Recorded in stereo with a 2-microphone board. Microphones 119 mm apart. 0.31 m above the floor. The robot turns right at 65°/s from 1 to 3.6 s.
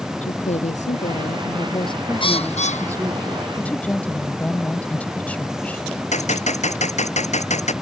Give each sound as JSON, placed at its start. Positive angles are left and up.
{"t": 0.2, "sound": "a woman speaking", "azimuth_deg": 80}
{"t": 2.2, "sound": "a bird", "azimuth_deg": 45}
{"t": 3.6, "sound": "a woman speaking", "side_deg": 10}
{"t": 6.1, "sound": "a gunshot", "side_deg": 75}